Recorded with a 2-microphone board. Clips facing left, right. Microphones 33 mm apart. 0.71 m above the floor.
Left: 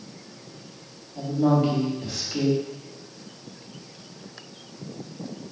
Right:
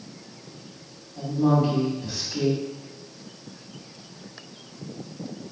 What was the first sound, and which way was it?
A woman speaking, 50° left (ahead or behind).